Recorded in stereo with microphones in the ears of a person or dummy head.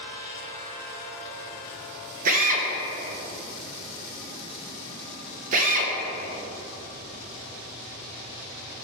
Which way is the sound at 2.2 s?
45° right (ahead or behind).